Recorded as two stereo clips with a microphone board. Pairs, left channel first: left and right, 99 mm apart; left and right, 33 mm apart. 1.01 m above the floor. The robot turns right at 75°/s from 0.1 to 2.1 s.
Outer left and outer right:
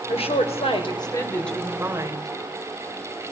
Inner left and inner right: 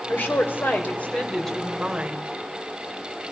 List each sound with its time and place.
0.1 s a woman speaking: 65° left, 3.5 m; by 2.3 s 145° right, 3.5 m